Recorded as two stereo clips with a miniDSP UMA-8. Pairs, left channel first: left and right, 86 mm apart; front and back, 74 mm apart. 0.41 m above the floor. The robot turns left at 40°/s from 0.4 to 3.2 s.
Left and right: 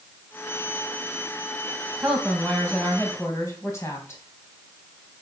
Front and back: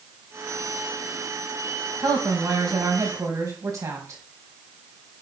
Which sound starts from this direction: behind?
A woman speaking, at 2.0 s.